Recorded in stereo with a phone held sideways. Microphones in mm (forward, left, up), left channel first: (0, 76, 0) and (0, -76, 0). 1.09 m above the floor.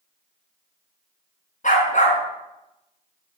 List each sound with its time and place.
1.6 s a dog barking: 60° left (ahead or behind), 2.5 m